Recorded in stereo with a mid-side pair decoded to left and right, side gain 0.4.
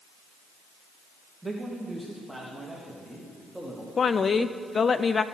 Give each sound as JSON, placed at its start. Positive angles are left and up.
{"t": 1.4, "sound": "a man speaking", "azimuth_deg": -15, "distance_m": 2.0}
{"t": 4.0, "sound": "a woman speaking", "azimuth_deg": 45, "distance_m": 0.5}